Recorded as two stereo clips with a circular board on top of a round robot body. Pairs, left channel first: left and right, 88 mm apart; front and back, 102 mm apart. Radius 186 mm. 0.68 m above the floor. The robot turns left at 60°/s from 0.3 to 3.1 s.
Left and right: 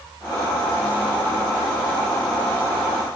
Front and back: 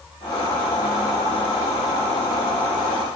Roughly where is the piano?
No piano in this recording.